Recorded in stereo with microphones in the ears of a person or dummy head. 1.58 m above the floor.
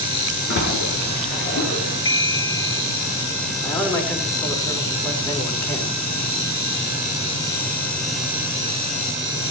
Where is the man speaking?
15° left (ahead or behind), 4.5 m.